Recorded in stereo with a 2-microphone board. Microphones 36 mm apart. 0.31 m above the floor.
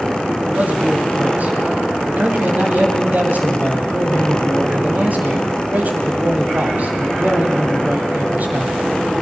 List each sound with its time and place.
0.5 s a man speaking: 45° right (ahead or behind), 2.5 m